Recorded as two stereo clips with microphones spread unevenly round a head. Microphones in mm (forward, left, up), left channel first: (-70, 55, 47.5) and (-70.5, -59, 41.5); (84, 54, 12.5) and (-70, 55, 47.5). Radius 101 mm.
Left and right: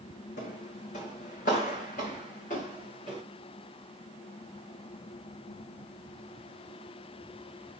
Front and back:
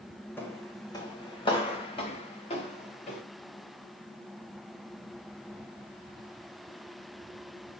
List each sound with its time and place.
0.4 s footsteps: 80° left, 3 m; by 3.2 s 45° left, 6.5 m